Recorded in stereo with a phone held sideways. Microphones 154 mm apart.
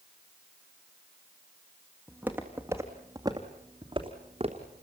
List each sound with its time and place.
2.1 s footsteps: 10° right (ahead or behind), 3.5 m; by 4.8 s 45° right (ahead or behind), 3 m